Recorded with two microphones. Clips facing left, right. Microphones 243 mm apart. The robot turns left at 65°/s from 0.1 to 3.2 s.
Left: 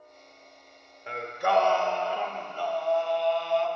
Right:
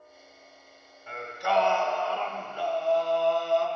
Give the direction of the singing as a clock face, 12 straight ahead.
9 o'clock.